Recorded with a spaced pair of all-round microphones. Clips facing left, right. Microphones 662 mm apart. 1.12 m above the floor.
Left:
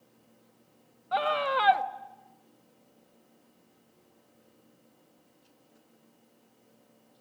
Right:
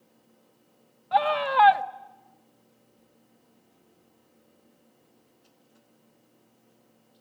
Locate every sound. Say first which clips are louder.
1.1 s a scream: right 3 dB; 25° right (ahead or behind), 0.8 m